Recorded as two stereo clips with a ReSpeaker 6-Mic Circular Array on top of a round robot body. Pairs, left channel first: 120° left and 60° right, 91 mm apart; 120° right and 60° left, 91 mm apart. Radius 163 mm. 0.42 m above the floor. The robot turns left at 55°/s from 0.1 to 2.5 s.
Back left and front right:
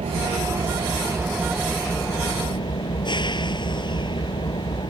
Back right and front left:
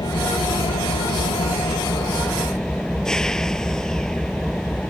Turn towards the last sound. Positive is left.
turn(degrees=160)